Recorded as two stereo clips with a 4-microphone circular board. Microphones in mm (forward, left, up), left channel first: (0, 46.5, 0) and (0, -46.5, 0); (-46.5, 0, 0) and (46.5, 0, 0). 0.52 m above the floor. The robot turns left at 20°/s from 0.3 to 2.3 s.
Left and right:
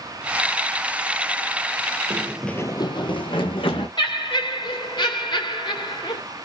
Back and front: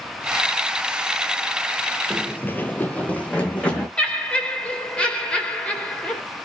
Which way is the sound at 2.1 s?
95° right.